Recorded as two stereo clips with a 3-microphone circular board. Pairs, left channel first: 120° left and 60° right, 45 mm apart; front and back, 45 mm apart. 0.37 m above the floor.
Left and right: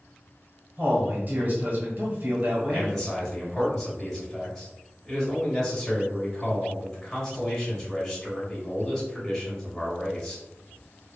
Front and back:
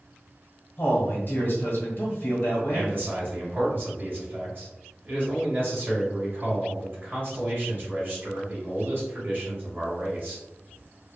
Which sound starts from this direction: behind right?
A man speaking, at 2.7 s.